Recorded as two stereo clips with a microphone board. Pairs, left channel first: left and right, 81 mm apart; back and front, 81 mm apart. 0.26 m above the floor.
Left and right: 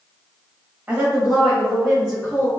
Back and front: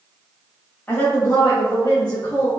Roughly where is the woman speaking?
Behind right.